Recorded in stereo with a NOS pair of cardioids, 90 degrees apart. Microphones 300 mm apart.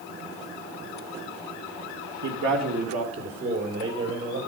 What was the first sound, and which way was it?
A man speaking, 65° right.